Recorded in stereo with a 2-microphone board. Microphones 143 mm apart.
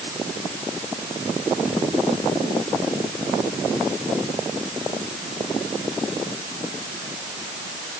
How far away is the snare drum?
No snare drum in this recording.